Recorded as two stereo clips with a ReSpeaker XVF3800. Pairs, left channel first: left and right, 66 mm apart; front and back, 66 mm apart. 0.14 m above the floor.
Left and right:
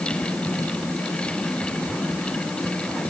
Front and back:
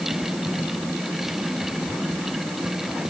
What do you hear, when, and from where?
Only background noise.